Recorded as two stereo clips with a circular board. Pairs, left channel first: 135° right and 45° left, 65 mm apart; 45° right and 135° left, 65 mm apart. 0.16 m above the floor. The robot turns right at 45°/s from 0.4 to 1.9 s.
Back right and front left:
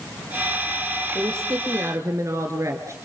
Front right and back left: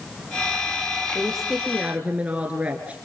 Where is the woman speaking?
35° left, 2 m; by 3.0 s 70° left, 2 m.